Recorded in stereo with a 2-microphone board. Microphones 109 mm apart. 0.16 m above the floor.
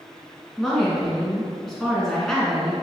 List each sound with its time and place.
0.6 s a woman speaking: 5° left (ahead or behind), 1.9 m